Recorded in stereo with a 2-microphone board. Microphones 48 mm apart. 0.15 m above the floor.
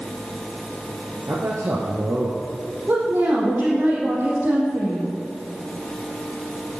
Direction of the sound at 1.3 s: 65° right (ahead or behind).